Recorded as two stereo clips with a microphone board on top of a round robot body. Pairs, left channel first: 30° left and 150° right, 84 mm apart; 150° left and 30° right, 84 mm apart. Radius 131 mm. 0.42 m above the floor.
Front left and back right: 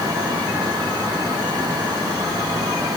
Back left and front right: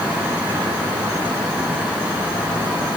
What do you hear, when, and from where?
Only background noise.